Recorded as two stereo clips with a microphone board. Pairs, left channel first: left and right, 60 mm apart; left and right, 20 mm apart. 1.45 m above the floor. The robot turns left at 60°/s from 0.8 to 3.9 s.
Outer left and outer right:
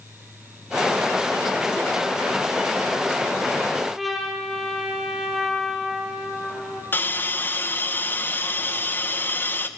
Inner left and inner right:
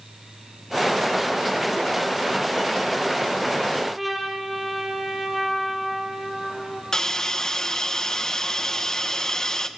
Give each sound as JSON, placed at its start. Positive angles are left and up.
{"t": 4.0, "sound": "a trumpet", "side_deg": 0, "distance_m": 5.5}
{"t": 6.9, "sound": "a hiss", "side_deg": 35, "distance_m": 1.7}